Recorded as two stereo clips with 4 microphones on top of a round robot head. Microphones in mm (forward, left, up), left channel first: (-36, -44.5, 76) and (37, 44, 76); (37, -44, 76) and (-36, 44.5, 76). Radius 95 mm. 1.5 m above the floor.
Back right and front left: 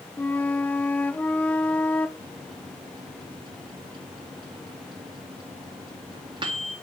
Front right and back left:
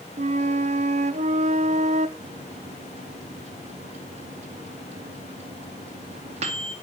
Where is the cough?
No cough in this recording.